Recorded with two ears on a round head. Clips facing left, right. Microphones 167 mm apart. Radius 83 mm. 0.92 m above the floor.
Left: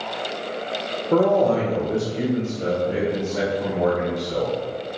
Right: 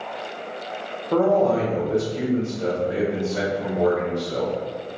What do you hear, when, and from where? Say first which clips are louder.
1.1 s a man speaking: left 1 dB; 20° left (ahead or behind), 0.7 m; by 4.5 s 25° right (ahead or behind), 1.7 m